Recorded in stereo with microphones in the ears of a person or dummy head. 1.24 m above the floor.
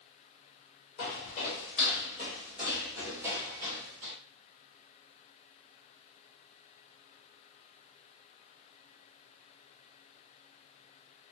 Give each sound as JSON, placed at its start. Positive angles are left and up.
{"t": 1.0, "sound": "footsteps", "side_deg": 35, "distance_m": 1.5}